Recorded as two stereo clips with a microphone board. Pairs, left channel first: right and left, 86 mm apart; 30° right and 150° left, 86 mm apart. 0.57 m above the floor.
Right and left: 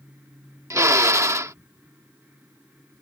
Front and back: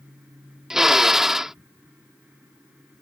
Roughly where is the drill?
Left.